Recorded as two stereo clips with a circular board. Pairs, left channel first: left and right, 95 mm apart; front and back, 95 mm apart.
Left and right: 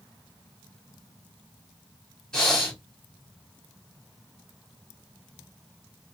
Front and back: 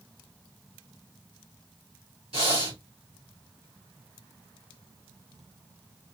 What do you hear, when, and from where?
2.3 s breathing: 170° left, 3 m